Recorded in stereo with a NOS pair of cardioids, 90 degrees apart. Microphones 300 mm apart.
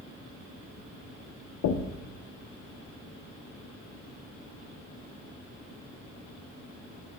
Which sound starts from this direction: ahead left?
Knocking, at 1.6 s.